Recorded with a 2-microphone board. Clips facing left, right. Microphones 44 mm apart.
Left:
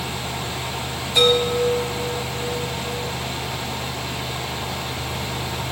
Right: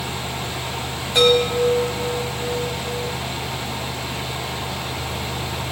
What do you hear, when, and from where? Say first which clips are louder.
1.1 s a chime: right 2 dB; 55° right (ahead or behind), 5.5 m